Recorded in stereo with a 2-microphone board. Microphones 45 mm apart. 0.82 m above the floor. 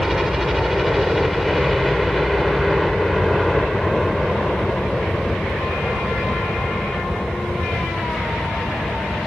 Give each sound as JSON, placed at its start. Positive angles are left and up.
{"t": 0.0, "sound": "a helicopter", "side_deg": -5}